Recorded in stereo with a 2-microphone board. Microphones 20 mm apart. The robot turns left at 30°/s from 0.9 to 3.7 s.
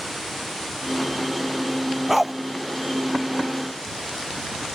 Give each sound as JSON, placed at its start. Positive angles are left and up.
{"t": 2.1, "sound": "a dog barking", "side_deg": -10}